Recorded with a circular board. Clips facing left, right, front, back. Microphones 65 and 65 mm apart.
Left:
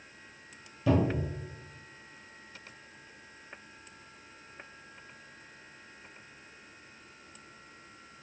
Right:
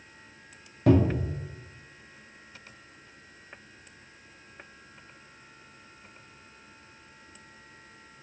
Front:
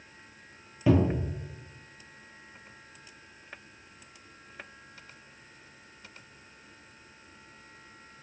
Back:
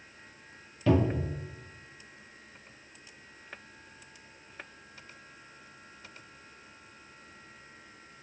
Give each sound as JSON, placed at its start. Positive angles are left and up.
{"t": 0.9, "sound": "a cupboard door", "azimuth_deg": -70, "distance_m": 1.2}